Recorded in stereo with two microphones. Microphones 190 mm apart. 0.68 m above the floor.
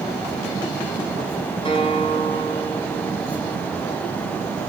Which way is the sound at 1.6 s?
25° left (ahead or behind).